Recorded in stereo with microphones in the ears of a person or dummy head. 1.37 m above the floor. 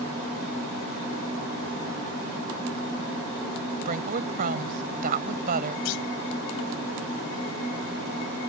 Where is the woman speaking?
45° right (ahead or behind).